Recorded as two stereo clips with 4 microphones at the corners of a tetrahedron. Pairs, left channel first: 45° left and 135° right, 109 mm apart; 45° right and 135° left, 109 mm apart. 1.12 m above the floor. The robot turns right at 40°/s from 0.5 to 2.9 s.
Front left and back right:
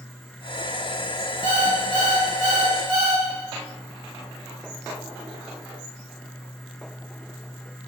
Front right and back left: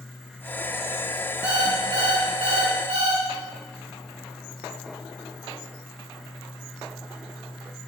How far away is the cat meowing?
I don't hear a cat meowing.